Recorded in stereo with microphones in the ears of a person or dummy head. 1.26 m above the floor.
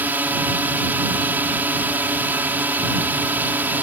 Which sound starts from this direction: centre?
A drone, at 0.0 s.